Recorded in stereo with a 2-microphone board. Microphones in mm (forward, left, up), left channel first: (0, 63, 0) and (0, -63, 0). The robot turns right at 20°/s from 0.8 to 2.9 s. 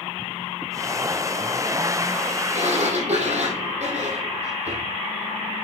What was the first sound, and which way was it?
A sliding door, 70° right (ahead or behind).